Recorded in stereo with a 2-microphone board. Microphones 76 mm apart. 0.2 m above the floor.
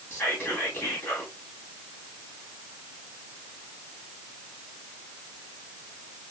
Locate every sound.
0.1 s whispering: 25° left (ahead or behind), 1.1 m